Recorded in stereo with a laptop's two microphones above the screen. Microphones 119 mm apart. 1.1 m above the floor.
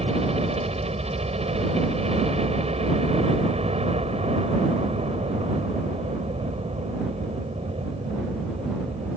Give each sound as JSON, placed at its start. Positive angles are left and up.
{"t": 0.0, "sound": "a helicopter", "side_deg": -60}